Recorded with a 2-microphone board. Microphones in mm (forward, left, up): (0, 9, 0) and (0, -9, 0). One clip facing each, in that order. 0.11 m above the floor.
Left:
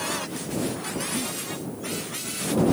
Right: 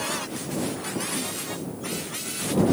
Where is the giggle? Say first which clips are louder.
Left 1 dB; 25° left (ahead or behind).